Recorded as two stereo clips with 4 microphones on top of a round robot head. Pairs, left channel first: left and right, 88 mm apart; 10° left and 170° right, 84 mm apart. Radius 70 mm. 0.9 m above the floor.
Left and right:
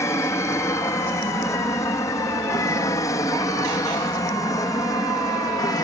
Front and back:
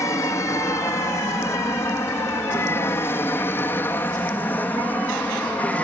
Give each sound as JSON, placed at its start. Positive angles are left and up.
{"t": 0.0, "sound": "an aircraft", "azimuth_deg": 45}